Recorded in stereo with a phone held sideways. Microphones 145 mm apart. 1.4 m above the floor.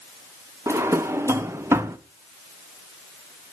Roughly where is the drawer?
Centre.